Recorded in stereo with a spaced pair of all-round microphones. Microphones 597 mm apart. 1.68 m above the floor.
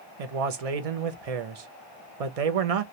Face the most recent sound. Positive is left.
turn(degrees=-75)  # may be behind; listen again after turning